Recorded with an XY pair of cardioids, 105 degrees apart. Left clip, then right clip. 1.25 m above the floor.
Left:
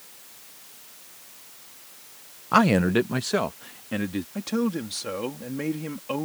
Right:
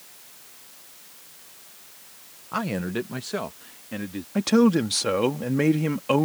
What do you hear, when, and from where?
2.5 s a man speaking: 65° left; by 4.2 s 25° left
4.3 s a man speaking: 55° right